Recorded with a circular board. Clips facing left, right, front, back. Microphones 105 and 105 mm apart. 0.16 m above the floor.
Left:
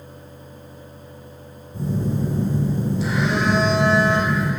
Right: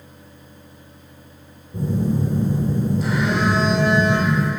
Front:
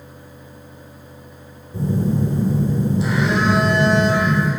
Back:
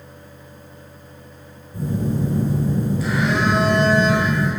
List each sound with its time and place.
1.7 s a phone buzzing: 60° right, 3 m